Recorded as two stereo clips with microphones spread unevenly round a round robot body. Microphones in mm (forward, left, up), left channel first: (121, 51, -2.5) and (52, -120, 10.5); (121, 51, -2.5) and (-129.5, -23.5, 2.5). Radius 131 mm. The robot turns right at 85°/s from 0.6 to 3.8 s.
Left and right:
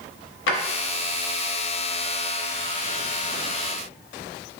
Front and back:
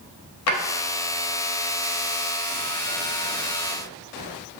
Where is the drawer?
50° left, 0.7 m.